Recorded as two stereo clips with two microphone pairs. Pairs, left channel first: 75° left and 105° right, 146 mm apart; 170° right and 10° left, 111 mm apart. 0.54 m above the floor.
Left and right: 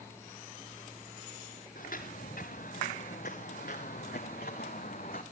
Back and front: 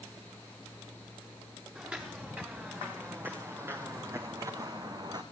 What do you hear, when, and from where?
1.8 s footsteps: 85° left, 4.5 m; by 5.2 s 55° left, 3 m